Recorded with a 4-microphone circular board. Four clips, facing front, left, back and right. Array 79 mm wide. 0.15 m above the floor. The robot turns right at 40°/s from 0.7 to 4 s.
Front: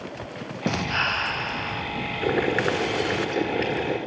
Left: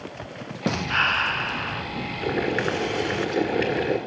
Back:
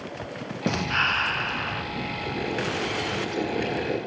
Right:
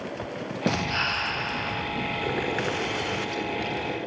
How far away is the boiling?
About 2.5 m.